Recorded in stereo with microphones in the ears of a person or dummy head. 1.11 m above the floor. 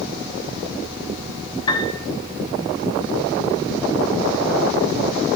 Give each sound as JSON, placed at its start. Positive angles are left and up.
{"t": 1.7, "sound": "a piano", "side_deg": 30, "distance_m": 5.5}